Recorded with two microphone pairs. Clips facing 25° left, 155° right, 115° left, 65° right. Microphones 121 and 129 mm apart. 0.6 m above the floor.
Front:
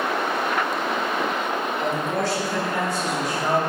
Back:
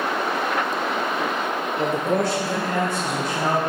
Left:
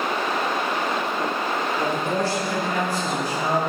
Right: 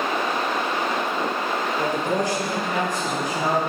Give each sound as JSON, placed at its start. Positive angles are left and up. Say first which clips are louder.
{"t": 1.8, "sound": "a man speaking", "louder": "back 6 dB, right 2 dB", "azimuth_deg": -140, "distance_m": 1.5}